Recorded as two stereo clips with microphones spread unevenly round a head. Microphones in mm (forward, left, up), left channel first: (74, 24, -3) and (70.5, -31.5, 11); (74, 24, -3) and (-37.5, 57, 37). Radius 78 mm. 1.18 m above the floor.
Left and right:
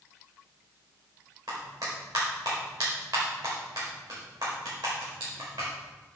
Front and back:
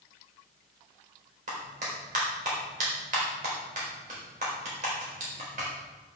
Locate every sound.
1.5 s a clap: 150° right, 4.5 m